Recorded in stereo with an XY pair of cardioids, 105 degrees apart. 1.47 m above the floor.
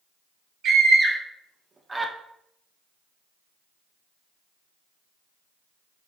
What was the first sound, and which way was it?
A scream, 60° right.